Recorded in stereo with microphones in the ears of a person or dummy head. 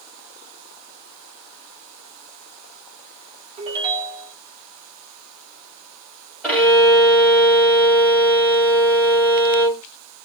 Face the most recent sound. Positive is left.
turn(degrees=-10)  # may be behind; listen again after turning